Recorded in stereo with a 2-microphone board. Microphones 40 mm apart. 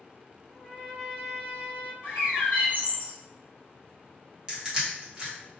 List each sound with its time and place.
0.5 s a trumpet: centre (ahead or behind), 1.0 m
2.0 s a bird: 50° left (ahead or behind), 1.8 m
4.5 s crushing: 20° right (ahead or behind), 1.1 m